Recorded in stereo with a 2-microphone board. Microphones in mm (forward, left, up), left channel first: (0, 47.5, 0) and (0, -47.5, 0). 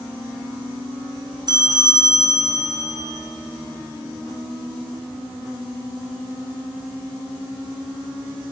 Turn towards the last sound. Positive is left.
turn(degrees=-45)  # may be behind; listen again after turning